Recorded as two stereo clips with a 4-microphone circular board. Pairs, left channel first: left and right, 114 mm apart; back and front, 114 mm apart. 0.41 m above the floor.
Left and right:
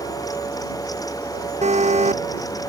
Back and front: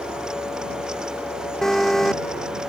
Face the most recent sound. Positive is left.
turn(degrees=-95)